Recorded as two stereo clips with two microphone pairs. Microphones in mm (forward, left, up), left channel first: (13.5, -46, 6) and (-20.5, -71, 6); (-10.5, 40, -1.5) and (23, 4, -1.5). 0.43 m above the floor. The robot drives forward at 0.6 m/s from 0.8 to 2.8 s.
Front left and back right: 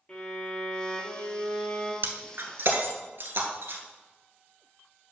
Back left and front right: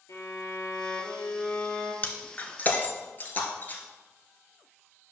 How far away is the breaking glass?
About 1.0 m.